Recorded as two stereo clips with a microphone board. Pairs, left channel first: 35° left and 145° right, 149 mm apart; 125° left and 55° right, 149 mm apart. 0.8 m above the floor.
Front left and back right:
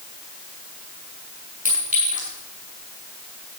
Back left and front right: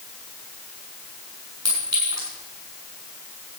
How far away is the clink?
About 6.5 m.